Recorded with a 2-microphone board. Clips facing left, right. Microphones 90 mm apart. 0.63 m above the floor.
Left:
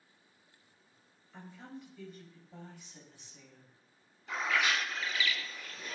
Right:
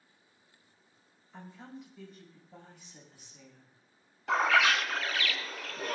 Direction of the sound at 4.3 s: 75° right (ahead or behind).